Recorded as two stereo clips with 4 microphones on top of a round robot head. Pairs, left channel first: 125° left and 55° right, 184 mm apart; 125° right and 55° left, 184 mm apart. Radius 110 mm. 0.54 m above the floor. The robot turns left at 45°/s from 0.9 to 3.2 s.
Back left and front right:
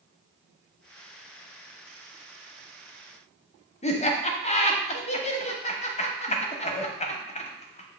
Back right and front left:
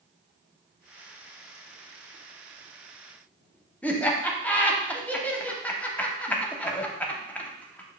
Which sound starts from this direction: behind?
Laughter, at 3.8 s.